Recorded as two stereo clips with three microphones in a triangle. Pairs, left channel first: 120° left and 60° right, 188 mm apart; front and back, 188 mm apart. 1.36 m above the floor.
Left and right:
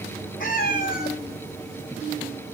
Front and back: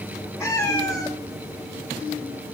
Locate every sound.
0.4 s a cat meowing: 75° left, 3 m